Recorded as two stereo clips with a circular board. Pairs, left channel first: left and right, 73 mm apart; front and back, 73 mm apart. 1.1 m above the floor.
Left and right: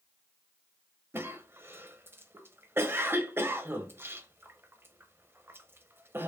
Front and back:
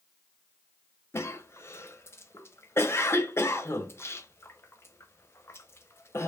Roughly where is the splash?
I don't hear a splash.